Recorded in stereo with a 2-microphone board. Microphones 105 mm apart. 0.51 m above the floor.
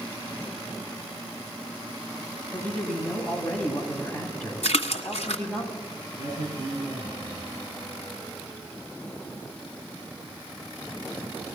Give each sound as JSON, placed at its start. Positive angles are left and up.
{"t": 2.5, "sound": "a man speaking", "side_deg": 15, "distance_m": 4.0}
{"t": 4.6, "sound": "a splash", "side_deg": 80, "distance_m": 1.3}
{"t": 6.2, "sound": "a man speaking", "side_deg": -40, "distance_m": 7.0}